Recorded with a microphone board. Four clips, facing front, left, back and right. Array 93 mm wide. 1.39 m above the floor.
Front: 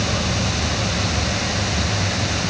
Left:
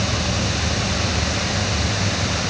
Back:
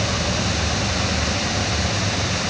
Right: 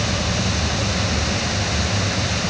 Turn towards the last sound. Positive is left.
No sound to turn to.